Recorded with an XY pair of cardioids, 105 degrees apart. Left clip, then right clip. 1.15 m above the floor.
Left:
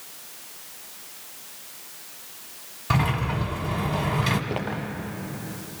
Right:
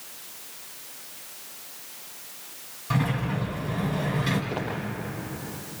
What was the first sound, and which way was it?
A sliding door, 60° left.